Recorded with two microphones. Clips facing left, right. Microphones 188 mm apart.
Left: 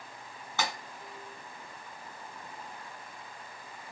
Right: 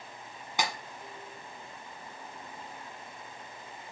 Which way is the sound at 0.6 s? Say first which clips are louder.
Right 1 dB; 15° right (ahead or behind).